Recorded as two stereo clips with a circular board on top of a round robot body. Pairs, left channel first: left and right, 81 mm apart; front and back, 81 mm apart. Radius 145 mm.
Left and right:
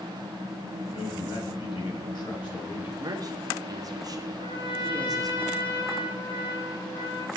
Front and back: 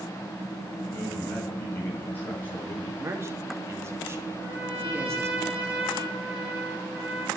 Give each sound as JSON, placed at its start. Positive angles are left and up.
{"t": 0.9, "sound": "a man speaking", "azimuth_deg": 65, "distance_m": 6.0}
{"t": 3.0, "sound": "a man speaking", "azimuth_deg": -125, "distance_m": 2.5}
{"t": 4.3, "sound": "a trumpet", "azimuth_deg": 105, "distance_m": 4.0}